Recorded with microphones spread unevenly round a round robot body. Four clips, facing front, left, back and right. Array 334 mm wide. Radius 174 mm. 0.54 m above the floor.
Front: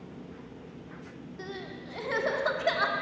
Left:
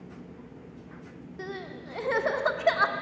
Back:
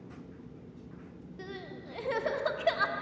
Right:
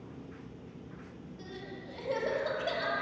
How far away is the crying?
About 0.9 m.